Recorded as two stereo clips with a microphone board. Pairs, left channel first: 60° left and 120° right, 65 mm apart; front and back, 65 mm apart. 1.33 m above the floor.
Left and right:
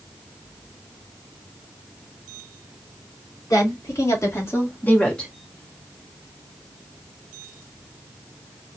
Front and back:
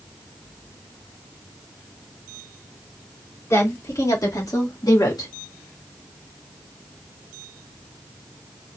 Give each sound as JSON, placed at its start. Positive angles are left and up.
{"t": 3.5, "sound": "a woman speaking", "azimuth_deg": 40, "distance_m": 3.5}